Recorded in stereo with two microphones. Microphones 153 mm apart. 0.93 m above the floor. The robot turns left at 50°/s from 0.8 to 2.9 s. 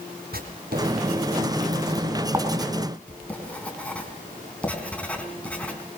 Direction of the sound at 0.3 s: 80° right.